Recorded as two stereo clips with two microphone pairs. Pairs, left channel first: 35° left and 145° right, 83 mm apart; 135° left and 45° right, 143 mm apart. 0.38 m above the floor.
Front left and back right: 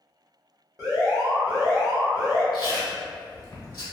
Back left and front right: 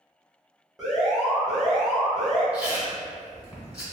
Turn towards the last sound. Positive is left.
turn(degrees=35)